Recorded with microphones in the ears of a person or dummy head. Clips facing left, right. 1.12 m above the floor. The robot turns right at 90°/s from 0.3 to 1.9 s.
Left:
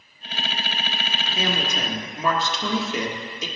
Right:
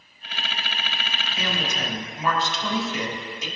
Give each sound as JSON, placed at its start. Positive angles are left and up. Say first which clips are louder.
{"t": 1.4, "sound": "a woman speaking", "louder": "left 3 dB", "azimuth_deg": 25, "distance_m": 1.5}